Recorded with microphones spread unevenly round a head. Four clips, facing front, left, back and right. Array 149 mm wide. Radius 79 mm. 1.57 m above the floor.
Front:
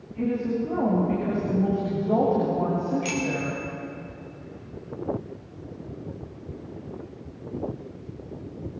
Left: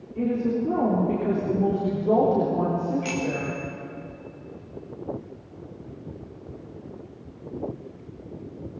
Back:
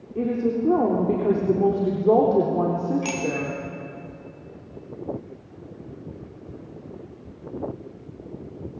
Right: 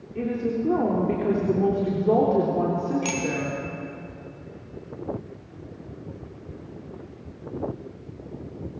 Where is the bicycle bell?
145° right, 4 m.